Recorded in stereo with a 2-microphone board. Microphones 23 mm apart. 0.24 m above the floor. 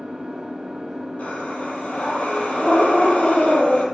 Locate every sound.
0.0 s an engine running: 45° right (ahead or behind), 4.5 m
1.2 s breathing: 70° left (ahead or behind), 8 m